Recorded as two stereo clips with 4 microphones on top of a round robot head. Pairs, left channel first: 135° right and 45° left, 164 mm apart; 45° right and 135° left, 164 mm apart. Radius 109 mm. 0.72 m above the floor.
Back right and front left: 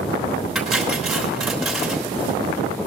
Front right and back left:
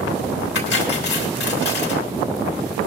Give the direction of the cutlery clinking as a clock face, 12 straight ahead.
1 o'clock.